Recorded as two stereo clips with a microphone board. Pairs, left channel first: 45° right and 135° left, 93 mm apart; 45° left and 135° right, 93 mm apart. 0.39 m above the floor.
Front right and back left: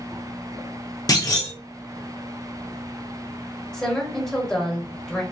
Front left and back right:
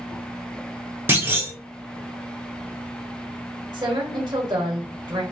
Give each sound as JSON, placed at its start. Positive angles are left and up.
{"t": 1.1, "sound": "a clunk", "azimuth_deg": -80, "distance_m": 1.2}
{"t": 3.7, "sound": "a woman speaking", "azimuth_deg": -120, "distance_m": 1.1}